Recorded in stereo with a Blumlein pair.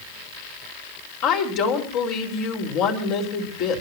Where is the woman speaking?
45° left, 4.5 m.